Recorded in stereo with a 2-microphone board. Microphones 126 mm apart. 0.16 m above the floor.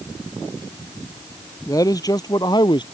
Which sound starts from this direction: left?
A man speaking, at 1.7 s.